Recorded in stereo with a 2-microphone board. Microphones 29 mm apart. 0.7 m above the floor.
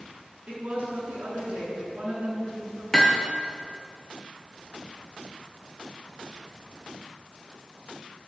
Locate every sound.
0.5 s a woman speaking: 50° right (ahead or behind), 9.5 m
2.9 s hammering: 20° left (ahead or behind), 3 m